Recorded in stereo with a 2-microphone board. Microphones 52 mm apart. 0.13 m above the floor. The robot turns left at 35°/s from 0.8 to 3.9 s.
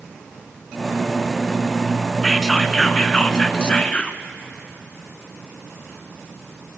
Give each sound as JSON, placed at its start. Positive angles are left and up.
{"t": 2.2, "sound": "whispering", "side_deg": 5, "distance_m": 1.1}